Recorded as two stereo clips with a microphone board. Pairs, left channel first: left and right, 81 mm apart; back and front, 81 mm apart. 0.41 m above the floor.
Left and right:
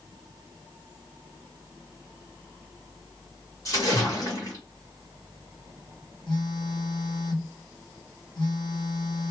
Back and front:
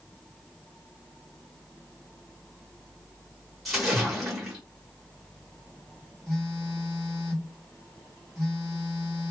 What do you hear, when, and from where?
3.6 s a splash: 90° left, 1.7 m
6.3 s a phone buzzing: 90° left, 2 m